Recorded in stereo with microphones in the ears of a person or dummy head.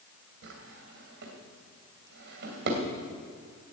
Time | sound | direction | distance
0.4 | a drawer | 65° right (ahead or behind) | 2.5 m